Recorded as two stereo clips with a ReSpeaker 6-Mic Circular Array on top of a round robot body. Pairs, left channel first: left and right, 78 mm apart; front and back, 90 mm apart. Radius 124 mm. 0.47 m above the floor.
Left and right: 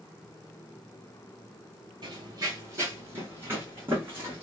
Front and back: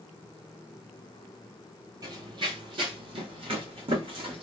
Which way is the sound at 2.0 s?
130° right.